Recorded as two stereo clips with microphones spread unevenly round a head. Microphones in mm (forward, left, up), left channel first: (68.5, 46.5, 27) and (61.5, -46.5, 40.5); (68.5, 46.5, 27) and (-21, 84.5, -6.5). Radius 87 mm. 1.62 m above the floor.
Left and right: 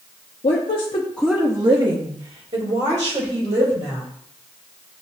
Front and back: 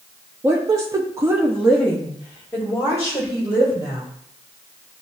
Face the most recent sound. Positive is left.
turn(degrees=-95)